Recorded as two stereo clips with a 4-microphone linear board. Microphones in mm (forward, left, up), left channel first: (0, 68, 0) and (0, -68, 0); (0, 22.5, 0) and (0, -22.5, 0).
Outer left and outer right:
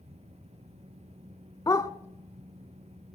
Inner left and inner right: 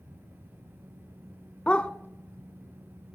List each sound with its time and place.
1.7 s a dog barking: 25° left (ahead or behind), 0.6 m